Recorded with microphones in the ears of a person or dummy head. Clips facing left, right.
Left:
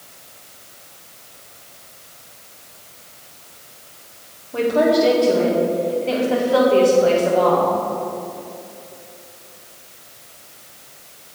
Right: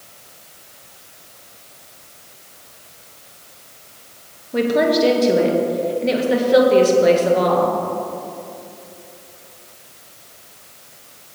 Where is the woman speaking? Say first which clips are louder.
Even; 25° right (ahead or behind), 1.6 m.